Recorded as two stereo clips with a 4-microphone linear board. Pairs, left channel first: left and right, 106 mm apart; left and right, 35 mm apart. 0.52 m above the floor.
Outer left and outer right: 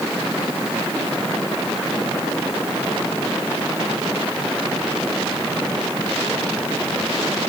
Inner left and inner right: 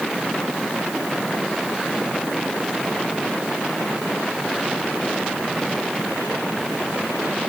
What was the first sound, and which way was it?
Only background noise.